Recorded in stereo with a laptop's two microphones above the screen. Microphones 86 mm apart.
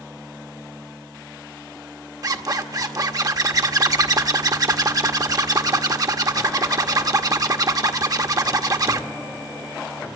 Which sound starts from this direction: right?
A zipper, at 2.2 s.